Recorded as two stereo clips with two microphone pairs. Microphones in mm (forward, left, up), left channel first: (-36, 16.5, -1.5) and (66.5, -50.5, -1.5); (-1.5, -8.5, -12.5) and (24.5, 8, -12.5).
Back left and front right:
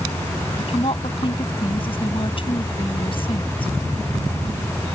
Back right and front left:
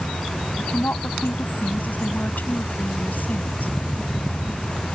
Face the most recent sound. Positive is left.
turn(degrees=-170)